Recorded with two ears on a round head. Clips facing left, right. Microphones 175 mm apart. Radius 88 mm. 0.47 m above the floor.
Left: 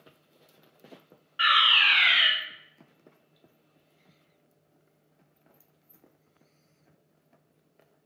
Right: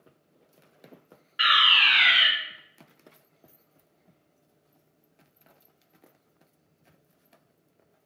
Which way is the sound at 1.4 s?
20° right (ahead or behind).